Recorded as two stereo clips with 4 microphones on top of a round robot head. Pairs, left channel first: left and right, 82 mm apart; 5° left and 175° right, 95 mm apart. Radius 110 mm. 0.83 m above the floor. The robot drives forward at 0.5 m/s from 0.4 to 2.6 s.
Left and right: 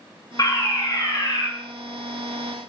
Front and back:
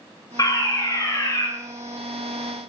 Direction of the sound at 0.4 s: 50° left.